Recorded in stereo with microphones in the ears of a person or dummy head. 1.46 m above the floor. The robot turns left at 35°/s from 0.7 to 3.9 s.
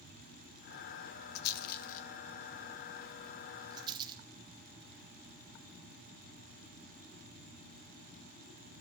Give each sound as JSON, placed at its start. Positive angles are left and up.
{"t": 1.4, "sound": "a rattle", "side_deg": 60, "distance_m": 1.0}